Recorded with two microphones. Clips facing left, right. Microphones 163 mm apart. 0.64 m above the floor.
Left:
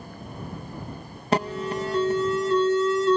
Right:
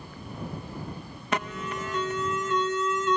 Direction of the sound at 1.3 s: 35° left (ahead or behind).